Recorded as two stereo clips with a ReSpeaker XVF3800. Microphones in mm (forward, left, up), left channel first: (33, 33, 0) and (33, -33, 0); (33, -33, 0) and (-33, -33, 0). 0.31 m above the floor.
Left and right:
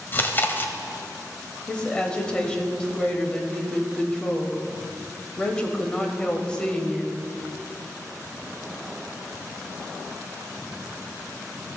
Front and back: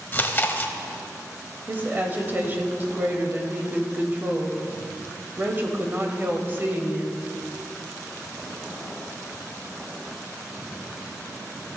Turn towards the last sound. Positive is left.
turn(degrees=155)